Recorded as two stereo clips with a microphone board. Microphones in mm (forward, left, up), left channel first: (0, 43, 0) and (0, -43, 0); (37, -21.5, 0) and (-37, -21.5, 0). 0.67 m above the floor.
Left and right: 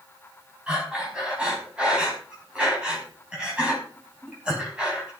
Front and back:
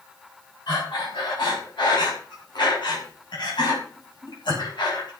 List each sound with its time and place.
0.7 s breathing: 10° right, 5.5 m